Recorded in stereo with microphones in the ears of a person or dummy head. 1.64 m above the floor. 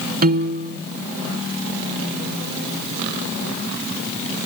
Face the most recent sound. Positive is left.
turn(degrees=-45)  # may be behind; listen again after turning